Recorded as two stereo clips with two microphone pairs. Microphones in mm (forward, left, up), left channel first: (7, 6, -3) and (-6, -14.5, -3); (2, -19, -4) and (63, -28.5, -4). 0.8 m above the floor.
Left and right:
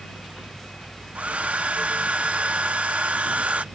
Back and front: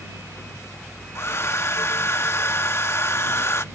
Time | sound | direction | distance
1.1 | a hair dryer | 140° right | ?